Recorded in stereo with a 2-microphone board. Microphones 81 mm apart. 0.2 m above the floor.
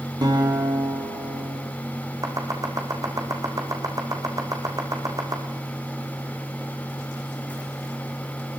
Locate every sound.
0.2 s a guitar: 55° right (ahead or behind), 7 m
2.2 s chopping: 45° right (ahead or behind), 4.5 m